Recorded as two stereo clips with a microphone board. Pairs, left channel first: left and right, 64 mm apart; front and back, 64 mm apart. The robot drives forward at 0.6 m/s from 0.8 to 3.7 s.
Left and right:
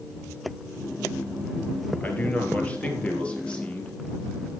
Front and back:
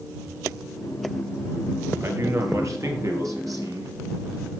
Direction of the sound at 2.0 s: 150° left.